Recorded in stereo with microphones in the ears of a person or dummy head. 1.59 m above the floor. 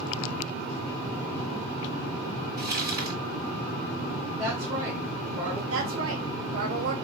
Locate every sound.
2.6 s crumpling: 25° right (ahead or behind), 3 m
4.4 s a woman speaking: 20° right (ahead or behind), 1.4 m
5.7 s a woman speaking: 85° right, 1.4 m